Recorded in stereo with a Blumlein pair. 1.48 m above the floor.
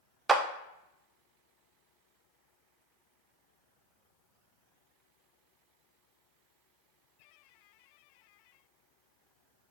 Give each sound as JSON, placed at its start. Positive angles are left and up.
{"t": 0.3, "sound": "a clap", "azimuth_deg": -15, "distance_m": 0.6}